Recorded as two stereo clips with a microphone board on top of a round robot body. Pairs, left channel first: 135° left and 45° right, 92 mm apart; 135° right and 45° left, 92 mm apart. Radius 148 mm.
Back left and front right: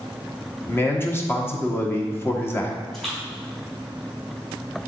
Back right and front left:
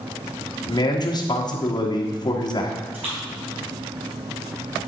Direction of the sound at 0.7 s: 165° right.